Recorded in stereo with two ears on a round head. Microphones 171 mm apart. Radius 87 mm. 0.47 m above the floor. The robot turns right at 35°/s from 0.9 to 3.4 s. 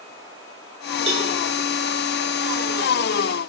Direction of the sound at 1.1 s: 30° right (ahead or behind).